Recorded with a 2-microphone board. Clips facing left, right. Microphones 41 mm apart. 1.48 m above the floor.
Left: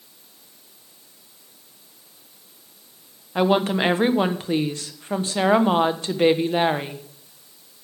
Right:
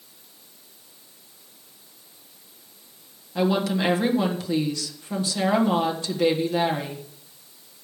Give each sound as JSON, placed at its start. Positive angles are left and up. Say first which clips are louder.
{"t": 3.4, "sound": "a woman speaking", "louder": "left 3 dB", "side_deg": 40, "distance_m": 1.3}